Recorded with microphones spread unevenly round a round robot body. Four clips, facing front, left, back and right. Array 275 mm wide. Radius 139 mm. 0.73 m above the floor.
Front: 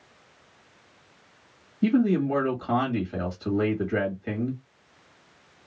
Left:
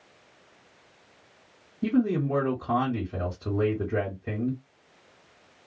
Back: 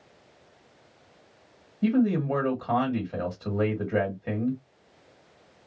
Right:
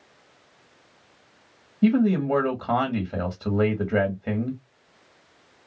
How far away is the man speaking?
About 1.5 m.